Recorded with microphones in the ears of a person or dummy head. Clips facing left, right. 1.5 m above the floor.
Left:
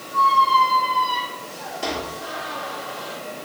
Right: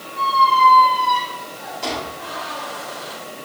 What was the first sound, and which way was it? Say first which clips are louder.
A squeak: even; 15° left (ahead or behind).